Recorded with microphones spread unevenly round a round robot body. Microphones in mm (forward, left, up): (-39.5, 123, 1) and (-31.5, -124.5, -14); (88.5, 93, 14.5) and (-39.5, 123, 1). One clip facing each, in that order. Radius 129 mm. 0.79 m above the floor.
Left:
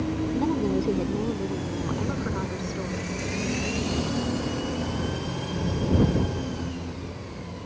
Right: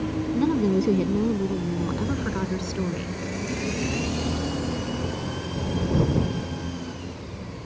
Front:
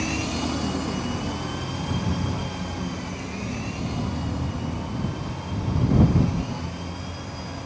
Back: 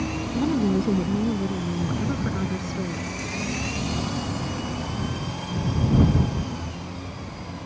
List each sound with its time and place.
0.3 s a woman speaking: 150° right; by 3.2 s 135° right